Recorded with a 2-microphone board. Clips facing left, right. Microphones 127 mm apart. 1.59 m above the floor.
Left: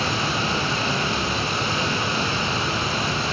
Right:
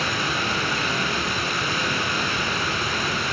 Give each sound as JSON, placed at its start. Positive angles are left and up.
{"t": 0.0, "sound": "running water", "side_deg": 30, "distance_m": 4.5}